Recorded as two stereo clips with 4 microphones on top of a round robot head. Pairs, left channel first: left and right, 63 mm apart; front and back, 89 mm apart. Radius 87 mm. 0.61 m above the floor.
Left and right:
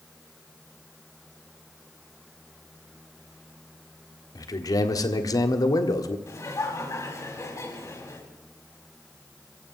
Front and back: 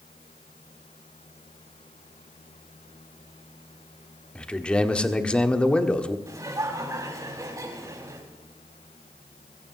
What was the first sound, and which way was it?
A man speaking, 75° left.